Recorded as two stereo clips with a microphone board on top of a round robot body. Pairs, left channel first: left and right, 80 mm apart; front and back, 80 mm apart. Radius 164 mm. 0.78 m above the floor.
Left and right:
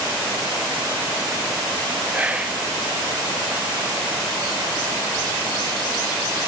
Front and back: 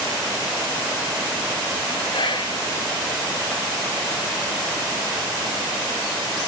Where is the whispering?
15° right, 1.5 m.